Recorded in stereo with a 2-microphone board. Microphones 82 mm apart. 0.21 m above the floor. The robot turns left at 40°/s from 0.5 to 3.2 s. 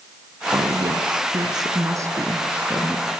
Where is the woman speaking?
75° right, 3 m; by 3.1 s straight behind, 3 m.